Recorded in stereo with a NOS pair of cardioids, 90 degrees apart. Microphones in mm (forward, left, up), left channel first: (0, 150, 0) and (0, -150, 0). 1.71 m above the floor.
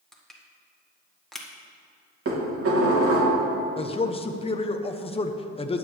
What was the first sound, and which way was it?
Crushing, straight ahead.